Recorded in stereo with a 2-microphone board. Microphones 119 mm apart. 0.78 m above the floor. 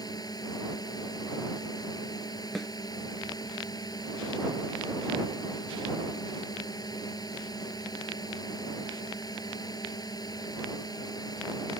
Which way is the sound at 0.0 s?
35° left (ahead or behind).